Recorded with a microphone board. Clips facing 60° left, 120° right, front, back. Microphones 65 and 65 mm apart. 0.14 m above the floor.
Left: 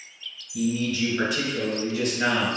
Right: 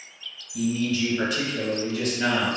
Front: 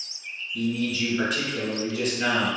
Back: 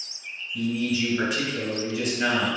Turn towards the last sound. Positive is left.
turn(degrees=95)